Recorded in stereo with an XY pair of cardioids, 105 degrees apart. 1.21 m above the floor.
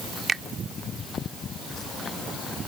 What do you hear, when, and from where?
0.3 s a finger snap: 30° right